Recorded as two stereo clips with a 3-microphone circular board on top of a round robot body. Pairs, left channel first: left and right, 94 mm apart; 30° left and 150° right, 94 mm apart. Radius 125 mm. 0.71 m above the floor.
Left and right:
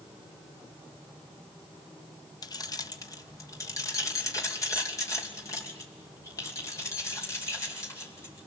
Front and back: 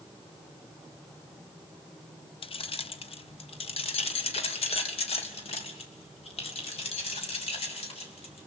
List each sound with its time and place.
2.4 s keys jangling: 45° left, 0.9 m; by 8.5 s 30° left, 5 m